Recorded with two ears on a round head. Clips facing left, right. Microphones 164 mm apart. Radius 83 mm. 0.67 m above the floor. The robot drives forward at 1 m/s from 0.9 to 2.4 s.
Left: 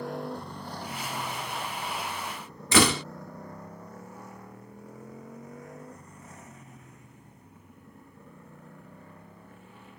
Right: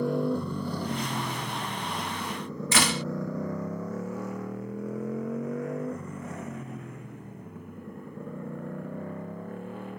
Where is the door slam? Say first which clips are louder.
Left 6 dB; 70° left (ahead or behind).